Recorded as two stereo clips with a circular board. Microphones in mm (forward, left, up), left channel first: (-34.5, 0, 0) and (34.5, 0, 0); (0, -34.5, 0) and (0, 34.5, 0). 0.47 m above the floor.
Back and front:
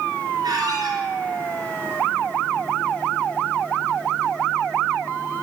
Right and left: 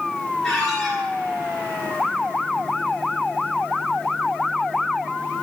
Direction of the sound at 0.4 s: Straight ahead.